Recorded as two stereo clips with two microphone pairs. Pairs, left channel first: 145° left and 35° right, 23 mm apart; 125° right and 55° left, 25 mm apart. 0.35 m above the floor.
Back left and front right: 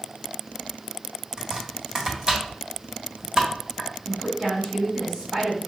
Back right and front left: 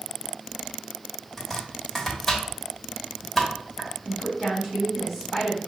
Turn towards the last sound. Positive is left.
turn(degrees=-25)